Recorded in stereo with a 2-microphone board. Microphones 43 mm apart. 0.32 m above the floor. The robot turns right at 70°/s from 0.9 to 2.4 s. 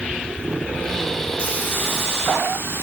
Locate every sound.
1.4 s a hiss: 30° left, 4 m; by 2.8 s 100° left, 4 m